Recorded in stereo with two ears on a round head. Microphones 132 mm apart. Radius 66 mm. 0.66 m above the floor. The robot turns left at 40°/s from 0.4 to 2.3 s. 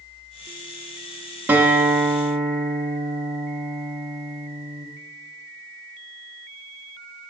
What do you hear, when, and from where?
1.5 s a guitar: 160° right, 0.6 m; by 4.9 s 165° left, 0.6 m